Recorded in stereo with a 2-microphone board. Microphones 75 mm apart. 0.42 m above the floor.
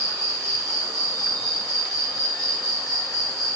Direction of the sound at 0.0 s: 50° right (ahead or behind).